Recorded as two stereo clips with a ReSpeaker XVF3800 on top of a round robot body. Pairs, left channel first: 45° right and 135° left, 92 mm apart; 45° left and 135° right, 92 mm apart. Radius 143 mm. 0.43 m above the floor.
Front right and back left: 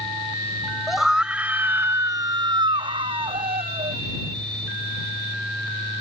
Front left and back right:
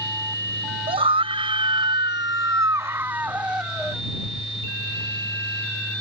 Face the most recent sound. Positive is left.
turn(degrees=135)